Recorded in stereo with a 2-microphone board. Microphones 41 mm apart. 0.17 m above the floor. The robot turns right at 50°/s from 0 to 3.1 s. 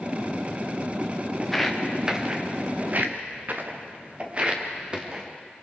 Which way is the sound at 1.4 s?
10° left (ahead or behind).